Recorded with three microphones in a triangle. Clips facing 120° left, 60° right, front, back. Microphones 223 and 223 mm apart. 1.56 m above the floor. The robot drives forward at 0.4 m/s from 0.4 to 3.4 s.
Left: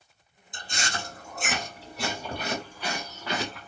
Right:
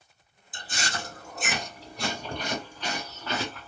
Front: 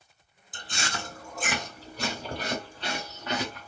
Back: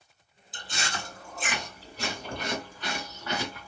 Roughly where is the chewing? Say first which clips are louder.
Even, front 1 dB; ahead left.